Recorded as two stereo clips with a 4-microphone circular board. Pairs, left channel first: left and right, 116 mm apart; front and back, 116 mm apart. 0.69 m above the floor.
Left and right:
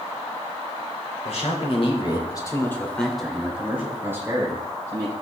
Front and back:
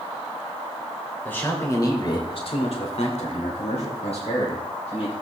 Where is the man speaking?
75° left, 3 m; by 5.1 s 30° right, 5 m.